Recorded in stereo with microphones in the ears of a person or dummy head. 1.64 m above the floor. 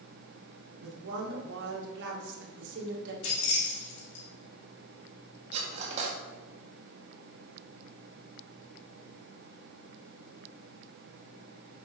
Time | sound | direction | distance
0.8 | a woman speaking | 65° right (ahead or behind) | 1.9 m
3.2 | keys jangling | 65° left (ahead or behind) | 2.5 m
5.5 | cutlery clinking | 35° right (ahead or behind) | 1.7 m